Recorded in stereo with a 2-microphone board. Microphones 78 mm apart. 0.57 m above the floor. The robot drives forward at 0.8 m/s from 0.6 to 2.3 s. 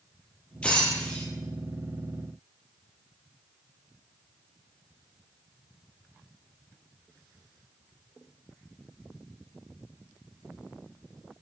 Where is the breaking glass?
15° left (ahead or behind), 5 m.